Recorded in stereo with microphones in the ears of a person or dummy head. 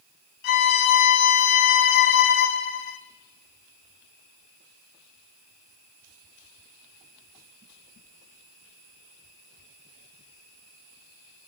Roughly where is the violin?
Left.